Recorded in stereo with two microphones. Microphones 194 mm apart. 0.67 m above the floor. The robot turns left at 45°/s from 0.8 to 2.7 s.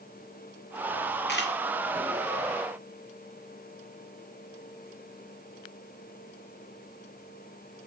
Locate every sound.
1.3 s a camera shutter: 60° left (ahead or behind), 1.5 m; by 1.5 s 65° left (ahead or behind), 1.5 m